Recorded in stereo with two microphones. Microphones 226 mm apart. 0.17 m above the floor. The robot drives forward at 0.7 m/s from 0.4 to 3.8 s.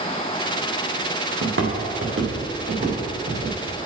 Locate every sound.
1.4 s footsteps: 70° right (ahead or behind), 3 m; by 3.5 s 45° right (ahead or behind), 5 m